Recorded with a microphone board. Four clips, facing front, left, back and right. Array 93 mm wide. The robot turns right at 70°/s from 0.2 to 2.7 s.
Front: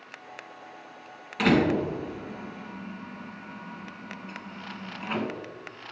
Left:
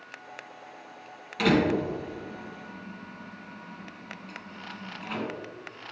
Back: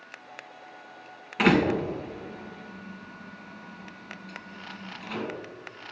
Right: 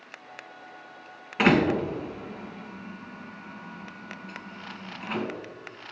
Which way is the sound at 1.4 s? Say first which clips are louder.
Right 2 dB, even; 120° right.